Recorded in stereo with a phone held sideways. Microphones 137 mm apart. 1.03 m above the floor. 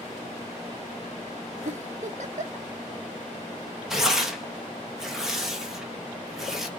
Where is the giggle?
60° right (ahead or behind), 1.0 m.